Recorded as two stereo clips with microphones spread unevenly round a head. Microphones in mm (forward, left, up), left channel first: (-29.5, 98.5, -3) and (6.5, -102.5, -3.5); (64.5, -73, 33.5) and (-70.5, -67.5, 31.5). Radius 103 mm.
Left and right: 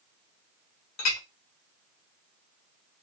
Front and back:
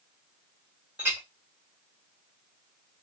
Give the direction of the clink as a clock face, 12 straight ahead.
9 o'clock.